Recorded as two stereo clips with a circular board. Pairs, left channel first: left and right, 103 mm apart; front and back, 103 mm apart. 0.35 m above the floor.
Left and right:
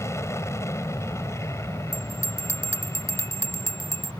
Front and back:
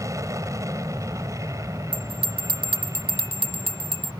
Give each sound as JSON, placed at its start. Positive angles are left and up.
{"t": 0.0, "sound": "an aircraft", "azimuth_deg": 140}
{"t": 1.9, "sound": "a bell", "azimuth_deg": 150}